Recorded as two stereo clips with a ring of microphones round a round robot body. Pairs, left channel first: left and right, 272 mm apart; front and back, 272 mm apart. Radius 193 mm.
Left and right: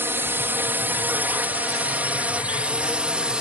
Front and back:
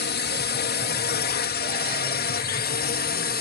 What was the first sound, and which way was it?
A drone, 15° right.